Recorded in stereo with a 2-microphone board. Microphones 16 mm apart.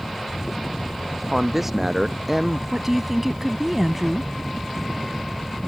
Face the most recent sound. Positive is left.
turn(degrees=-15)  # may be behind; listen again after turning